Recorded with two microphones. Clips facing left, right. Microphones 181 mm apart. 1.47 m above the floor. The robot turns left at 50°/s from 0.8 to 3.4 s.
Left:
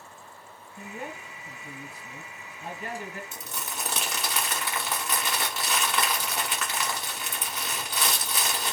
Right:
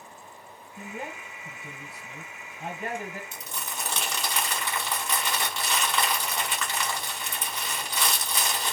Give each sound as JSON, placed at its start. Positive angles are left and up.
{"t": 0.8, "sound": "a man speaking", "azimuth_deg": -20, "distance_m": 1.2}
{"t": 3.3, "sound": "crumpling", "side_deg": 10, "distance_m": 1.3}